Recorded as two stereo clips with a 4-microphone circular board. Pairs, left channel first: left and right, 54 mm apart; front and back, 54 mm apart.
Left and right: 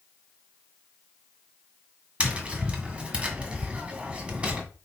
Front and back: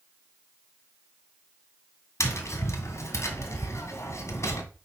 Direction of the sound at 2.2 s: 25° right.